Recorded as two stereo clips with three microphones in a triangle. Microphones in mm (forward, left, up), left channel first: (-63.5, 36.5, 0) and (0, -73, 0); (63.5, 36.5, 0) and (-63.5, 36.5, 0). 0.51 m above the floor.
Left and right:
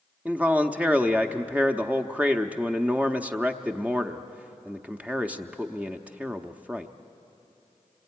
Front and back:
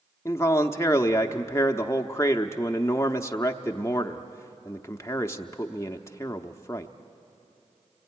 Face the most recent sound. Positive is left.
turn(degrees=0)